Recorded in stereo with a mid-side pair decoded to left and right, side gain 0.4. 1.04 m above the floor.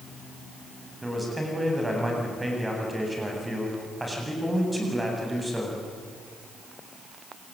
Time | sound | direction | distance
1.0 | a man speaking | 15° right | 8 m